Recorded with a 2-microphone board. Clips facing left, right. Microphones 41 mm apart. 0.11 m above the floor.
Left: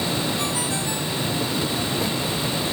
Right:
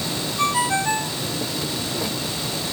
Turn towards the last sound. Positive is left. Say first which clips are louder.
# right 5 dB
turn(degrees=-40)  # may be behind; listen again after turning